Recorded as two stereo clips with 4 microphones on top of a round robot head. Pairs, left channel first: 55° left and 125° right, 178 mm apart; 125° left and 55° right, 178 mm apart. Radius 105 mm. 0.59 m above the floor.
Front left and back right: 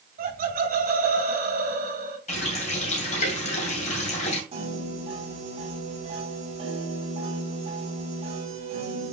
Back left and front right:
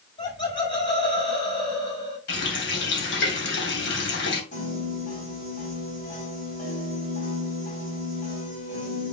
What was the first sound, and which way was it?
Laughter, 165° right.